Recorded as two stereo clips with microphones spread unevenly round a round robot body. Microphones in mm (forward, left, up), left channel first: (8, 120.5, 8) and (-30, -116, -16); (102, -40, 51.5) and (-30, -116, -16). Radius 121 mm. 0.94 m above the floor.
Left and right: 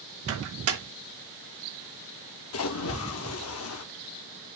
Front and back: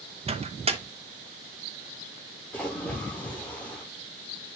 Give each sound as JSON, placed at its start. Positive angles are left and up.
{"t": 0.3, "sound": "a microwave", "azimuth_deg": -120, "distance_m": 1.1}
{"t": 2.5, "sound": "a splash", "azimuth_deg": 105, "distance_m": 0.9}